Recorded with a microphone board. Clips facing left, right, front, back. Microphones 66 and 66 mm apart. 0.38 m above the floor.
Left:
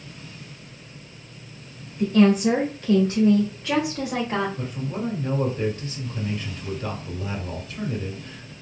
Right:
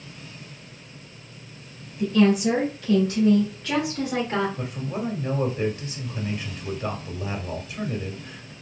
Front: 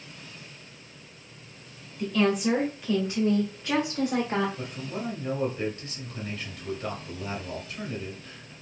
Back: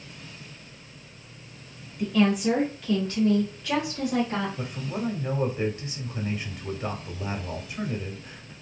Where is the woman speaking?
100° left, 1.6 m; by 4.5 s 15° left, 1.7 m.